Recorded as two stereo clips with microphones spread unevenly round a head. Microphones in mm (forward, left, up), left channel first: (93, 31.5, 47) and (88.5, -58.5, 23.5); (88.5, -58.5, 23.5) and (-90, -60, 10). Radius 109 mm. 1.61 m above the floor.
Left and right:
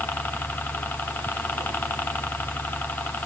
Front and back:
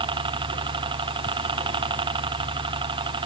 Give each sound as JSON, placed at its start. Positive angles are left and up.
{"t": 0.0, "sound": "a helicopter", "azimuth_deg": 170}